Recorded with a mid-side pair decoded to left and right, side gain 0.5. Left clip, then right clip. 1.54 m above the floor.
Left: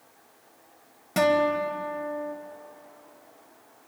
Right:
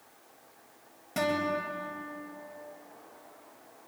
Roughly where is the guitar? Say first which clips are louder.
Left 8 dB; ahead left.